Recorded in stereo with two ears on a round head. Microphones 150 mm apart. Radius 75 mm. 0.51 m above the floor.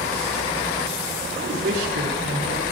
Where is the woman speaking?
80° right, 6.5 m.